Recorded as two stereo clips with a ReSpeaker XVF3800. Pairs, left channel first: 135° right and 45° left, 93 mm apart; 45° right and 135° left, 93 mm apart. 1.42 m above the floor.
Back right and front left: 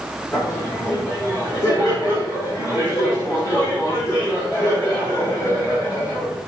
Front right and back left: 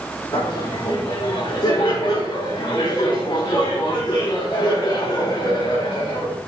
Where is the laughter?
85° right, 4.5 m.